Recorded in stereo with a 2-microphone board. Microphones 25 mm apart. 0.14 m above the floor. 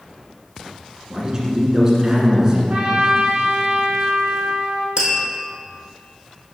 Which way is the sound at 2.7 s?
40° right (ahead or behind).